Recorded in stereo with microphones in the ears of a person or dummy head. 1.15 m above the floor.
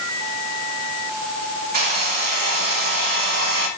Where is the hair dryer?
45° right (ahead or behind), 6 m.